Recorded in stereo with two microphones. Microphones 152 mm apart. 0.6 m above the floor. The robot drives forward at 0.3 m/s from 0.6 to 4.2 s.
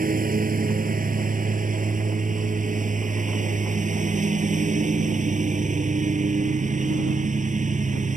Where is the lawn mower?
70° right (ahead or behind); by 8.2 s 55° right (ahead or behind).